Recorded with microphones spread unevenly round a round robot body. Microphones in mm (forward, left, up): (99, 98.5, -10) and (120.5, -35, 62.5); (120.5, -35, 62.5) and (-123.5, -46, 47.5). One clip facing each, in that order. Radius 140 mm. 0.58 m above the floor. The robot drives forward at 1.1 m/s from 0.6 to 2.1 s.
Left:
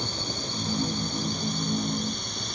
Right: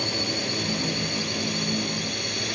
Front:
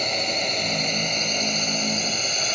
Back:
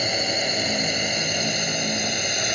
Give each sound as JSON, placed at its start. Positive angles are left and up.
{"t": 0.0, "sound": "a drone", "azimuth_deg": -95}